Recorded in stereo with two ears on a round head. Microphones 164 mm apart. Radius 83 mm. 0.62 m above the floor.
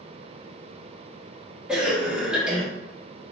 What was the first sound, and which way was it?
A cough, 5° right (ahead or behind).